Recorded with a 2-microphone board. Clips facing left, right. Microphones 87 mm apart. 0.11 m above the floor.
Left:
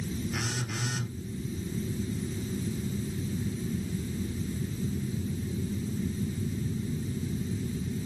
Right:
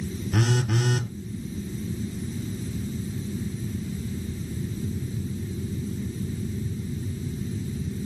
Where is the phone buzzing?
65° right (ahead or behind), 0.5 m.